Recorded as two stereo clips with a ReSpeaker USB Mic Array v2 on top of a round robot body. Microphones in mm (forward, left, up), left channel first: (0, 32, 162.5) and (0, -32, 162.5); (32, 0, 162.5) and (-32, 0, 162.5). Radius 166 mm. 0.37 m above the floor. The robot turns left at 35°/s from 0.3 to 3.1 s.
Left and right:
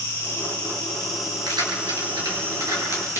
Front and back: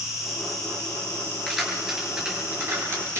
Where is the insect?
35° left, 8.5 m; by 3.2 s 65° right, 8.5 m.